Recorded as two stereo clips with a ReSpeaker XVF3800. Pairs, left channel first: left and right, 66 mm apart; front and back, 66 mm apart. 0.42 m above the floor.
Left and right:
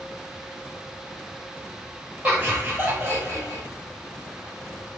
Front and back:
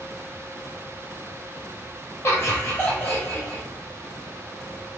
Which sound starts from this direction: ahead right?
Laughter, at 2.2 s.